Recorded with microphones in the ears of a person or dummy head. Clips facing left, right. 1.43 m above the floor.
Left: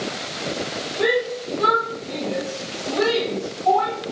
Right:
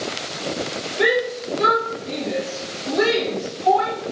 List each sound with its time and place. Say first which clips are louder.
1.0 s a shout: right 1 dB; 25° right (ahead or behind), 2 m